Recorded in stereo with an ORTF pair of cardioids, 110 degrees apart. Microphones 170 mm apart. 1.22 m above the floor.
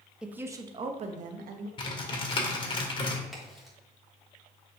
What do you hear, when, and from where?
0.2 s a woman speaking: 5° right, 1.1 m; by 1.7 s 65° right, 1.3 m
1.8 s typing on a keyboard: 30° left, 2 m
3.3 s a crack: straight ahead, 3.5 m